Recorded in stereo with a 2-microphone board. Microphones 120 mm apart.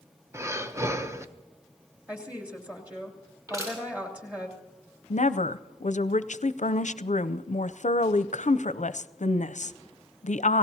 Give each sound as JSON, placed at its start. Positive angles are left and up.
{"t": 0.3, "sound": "breathing", "side_deg": -25, "distance_m": 0.7}
{"t": 2.1, "sound": "a woman speaking", "side_deg": -10, "distance_m": 2.5}
{"t": 3.5, "sound": "crushing", "side_deg": -25, "distance_m": 8.0}
{"t": 5.1, "sound": "a woman speaking", "side_deg": 80, "distance_m": 0.5}